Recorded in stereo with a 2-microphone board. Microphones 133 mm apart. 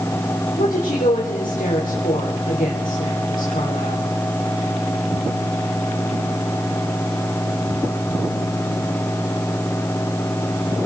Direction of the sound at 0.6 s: 80° left.